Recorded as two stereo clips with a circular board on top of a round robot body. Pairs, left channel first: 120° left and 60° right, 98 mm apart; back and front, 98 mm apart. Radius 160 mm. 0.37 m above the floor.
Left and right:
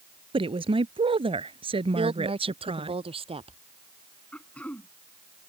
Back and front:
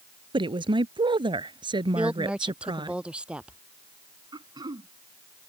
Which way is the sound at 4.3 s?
45° left.